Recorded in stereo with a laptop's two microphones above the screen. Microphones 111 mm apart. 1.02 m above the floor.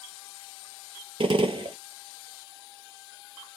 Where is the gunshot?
55° right (ahead or behind), 0.6 m.